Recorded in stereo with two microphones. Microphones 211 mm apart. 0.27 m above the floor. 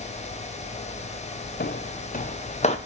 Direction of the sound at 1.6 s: 50° left (ahead or behind).